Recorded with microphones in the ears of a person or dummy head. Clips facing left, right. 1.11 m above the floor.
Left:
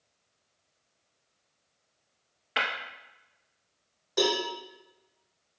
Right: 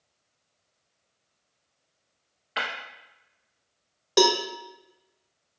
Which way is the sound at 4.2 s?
80° right.